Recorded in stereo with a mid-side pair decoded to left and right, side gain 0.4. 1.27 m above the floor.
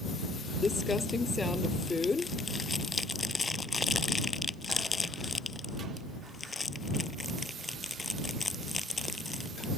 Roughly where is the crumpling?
Ahead left.